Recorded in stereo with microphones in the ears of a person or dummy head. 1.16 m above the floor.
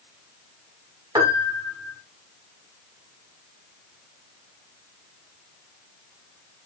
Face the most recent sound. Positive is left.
turn(degrees=-20)  # may be behind; listen again after turning